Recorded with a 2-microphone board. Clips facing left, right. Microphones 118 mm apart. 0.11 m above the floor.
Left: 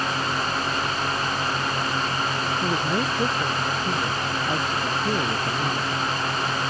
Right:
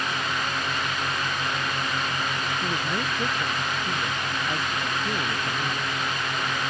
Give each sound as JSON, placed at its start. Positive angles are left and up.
{"t": 2.6, "sound": "a man speaking", "side_deg": 20}